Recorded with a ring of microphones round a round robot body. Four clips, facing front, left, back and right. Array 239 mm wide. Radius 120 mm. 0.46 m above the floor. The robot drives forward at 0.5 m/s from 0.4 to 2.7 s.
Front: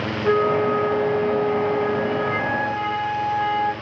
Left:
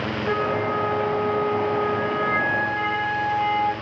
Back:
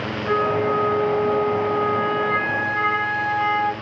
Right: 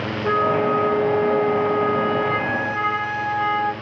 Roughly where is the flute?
Ahead right.